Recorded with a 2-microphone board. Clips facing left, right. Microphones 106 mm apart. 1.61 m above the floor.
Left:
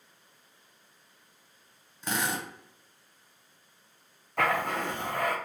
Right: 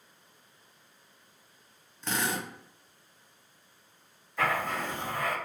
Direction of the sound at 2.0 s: 10° left (ahead or behind).